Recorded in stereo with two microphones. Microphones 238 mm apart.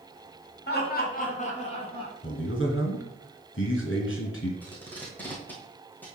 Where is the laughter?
45° left (ahead or behind), 1.8 m; by 2.1 s 20° left (ahead or behind), 3 m.